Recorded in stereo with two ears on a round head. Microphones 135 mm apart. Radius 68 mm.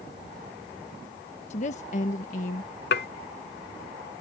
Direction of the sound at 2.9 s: 75° left (ahead or behind).